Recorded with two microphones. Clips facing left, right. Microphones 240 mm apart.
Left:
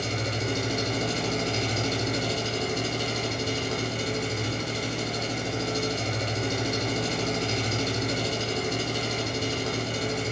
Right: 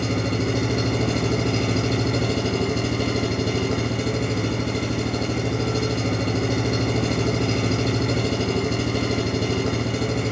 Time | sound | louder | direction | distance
0.0 | an engine running | right 8 dB | 60° right (ahead or behind) | 3.5 m